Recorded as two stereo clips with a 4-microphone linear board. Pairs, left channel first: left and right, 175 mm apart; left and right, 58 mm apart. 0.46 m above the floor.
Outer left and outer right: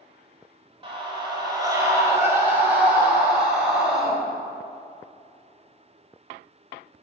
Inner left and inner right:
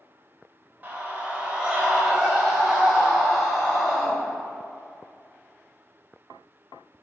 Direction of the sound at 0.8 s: 30° right (ahead or behind).